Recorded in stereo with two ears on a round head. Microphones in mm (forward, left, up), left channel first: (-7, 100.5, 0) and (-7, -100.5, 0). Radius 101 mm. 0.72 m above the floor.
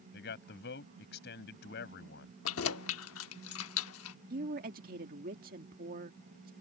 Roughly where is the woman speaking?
Right.